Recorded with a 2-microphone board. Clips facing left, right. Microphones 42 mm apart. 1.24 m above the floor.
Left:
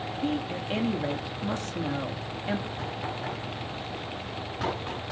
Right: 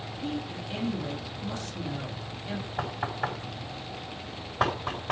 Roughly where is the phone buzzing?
I don't hear a phone buzzing.